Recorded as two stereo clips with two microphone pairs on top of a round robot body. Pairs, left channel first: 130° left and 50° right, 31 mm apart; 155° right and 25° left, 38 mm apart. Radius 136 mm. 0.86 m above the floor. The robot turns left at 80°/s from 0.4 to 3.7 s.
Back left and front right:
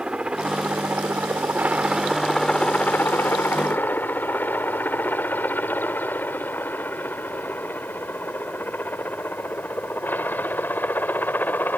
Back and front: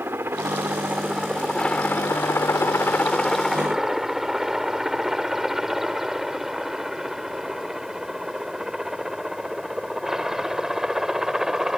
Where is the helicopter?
10° left; by 11.8 s 100° left.